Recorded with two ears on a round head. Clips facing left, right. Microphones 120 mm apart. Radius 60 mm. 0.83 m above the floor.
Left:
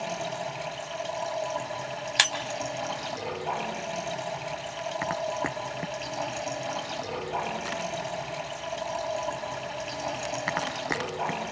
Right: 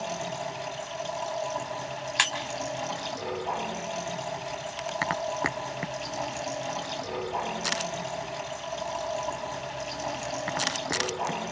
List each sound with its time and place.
0.0 s running water: 10° left (ahead or behind), 9.5 m
2.2 s breaking glass: 45° left (ahead or behind), 3.5 m